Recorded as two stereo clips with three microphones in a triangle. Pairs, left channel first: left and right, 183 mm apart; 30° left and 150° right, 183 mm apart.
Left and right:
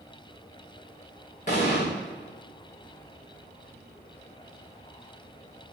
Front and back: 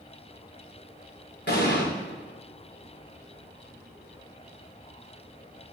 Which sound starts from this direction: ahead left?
An explosion, at 1.5 s.